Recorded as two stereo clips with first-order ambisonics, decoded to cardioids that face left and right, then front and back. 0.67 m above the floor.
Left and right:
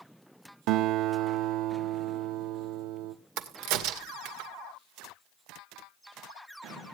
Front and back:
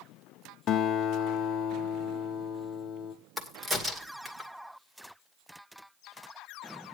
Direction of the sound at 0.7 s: 60° right.